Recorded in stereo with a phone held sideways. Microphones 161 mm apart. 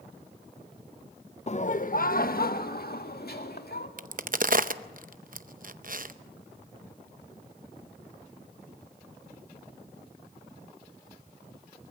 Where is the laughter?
40° left (ahead or behind), 0.6 m; by 3.9 s 70° left (ahead or behind), 2.5 m.